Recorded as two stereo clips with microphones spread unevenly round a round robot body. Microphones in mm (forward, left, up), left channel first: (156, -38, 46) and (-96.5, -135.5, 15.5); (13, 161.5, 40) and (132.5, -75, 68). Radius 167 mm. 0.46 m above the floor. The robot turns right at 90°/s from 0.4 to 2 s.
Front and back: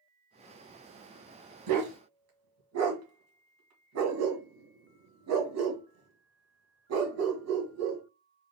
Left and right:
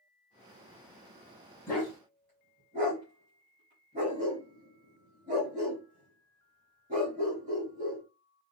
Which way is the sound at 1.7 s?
160° right.